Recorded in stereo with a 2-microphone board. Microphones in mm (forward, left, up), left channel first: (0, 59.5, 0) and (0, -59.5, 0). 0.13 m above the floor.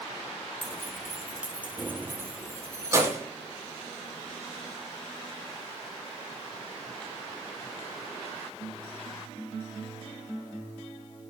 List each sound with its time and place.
0.6 s keys jangling: 10° left (ahead or behind), 1.8 m; by 3.2 s 25° right (ahead or behind), 4.5 m